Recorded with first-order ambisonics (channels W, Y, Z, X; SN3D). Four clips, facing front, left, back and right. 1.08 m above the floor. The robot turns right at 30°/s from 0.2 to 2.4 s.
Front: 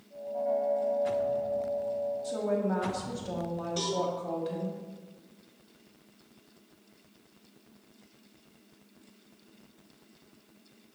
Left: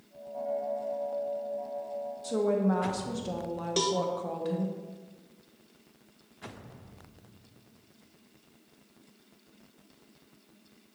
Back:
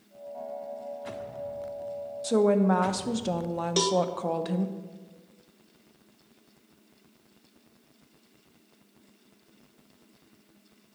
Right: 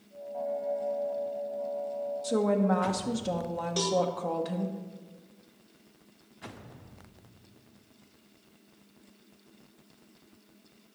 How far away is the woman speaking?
About 0.7 m.